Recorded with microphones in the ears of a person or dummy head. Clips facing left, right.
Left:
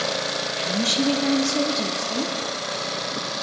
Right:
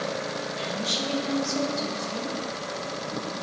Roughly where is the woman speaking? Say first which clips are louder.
Left 10 dB; left.